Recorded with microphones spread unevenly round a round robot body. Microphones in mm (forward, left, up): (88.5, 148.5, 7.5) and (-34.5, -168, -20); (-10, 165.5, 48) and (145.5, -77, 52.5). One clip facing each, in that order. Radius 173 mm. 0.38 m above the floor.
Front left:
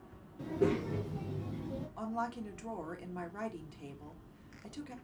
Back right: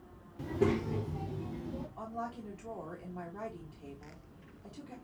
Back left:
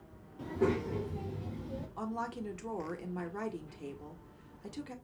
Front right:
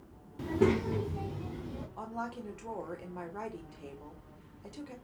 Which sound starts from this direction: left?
A woman speaking, at 2.0 s.